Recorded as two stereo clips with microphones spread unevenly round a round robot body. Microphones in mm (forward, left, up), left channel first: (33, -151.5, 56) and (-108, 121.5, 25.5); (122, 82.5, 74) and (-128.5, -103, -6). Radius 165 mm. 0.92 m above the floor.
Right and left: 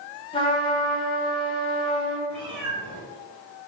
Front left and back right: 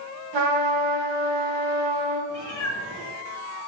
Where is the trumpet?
135° right, 1.5 m.